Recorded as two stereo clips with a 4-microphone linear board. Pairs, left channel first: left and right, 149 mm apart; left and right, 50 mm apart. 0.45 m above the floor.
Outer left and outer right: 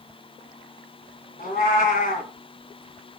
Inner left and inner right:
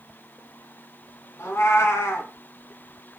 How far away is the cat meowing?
About 1.8 m.